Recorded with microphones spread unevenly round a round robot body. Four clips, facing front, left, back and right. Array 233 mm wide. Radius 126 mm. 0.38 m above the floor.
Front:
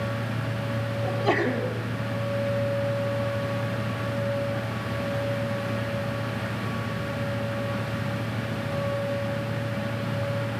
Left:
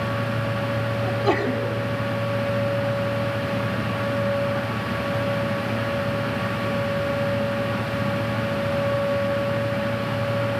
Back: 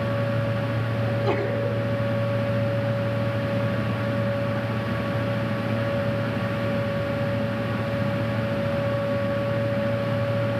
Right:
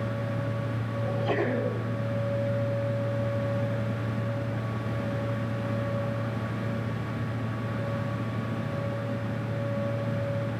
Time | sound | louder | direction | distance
1.0 | a sneeze | left 4 dB, front 1 dB | 40° left | 3.5 m